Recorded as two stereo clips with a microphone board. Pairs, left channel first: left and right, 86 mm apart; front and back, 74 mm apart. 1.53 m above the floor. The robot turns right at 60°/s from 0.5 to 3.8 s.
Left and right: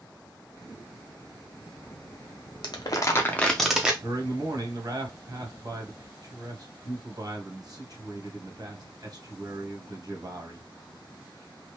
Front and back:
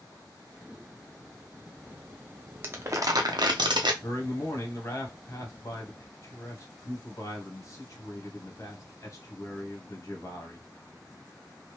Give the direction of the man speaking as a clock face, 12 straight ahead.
2 o'clock.